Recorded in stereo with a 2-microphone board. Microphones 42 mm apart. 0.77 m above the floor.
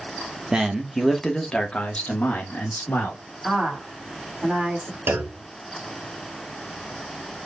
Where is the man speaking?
15° right (ahead or behind), 1.0 m; by 3.2 s 55° left (ahead or behind), 1.6 m.